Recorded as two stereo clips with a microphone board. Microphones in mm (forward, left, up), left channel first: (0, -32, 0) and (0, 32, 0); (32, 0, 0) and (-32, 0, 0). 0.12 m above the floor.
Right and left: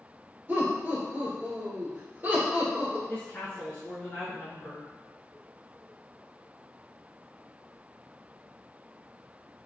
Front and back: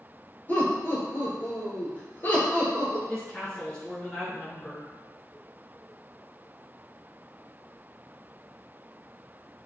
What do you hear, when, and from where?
0.5 s laughter: 40° left, 1.8 m
3.1 s a woman speaking: 60° right, 1.2 m